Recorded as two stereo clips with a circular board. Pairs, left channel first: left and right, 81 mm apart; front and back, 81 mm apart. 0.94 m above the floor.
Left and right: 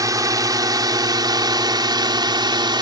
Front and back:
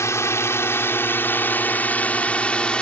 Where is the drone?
50° right; by 2.8 s 75° right.